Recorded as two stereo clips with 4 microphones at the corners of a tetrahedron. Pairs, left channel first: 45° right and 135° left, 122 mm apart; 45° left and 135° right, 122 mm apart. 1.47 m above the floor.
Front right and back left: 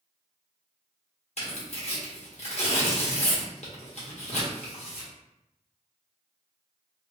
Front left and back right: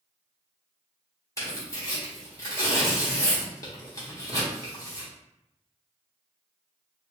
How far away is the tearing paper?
About 1.1 m.